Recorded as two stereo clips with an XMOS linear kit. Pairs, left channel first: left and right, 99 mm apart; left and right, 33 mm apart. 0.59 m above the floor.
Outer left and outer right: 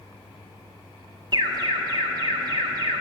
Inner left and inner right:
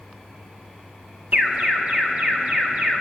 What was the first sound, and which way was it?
An alarm, 45° right (ahead or behind).